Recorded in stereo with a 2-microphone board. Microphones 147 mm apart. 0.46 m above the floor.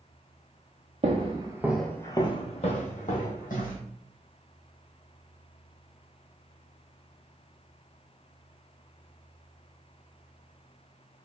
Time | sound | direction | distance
1.0 | footsteps | 50° right (ahead or behind) | 0.7 m